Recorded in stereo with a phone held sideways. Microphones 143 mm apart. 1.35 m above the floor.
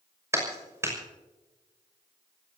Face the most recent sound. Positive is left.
turn(degrees=-20)  # may be behind; listen again after turning